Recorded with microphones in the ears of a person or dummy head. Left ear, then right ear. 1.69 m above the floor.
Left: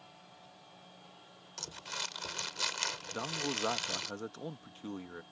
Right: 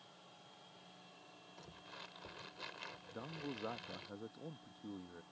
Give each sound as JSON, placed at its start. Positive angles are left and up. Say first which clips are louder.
{"t": 1.6, "sound": "crumpling", "louder": "left 15 dB", "side_deg": 80}
{"t": 3.1, "sound": "a man speaking", "louder": "left 12 dB", "side_deg": 70}